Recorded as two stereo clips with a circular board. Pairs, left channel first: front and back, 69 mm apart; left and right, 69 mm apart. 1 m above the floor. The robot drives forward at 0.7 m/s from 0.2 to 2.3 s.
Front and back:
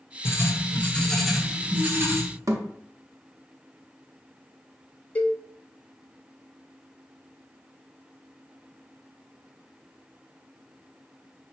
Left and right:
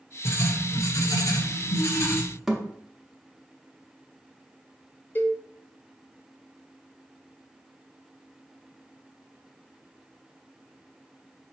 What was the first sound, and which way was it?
Writing, 40° left.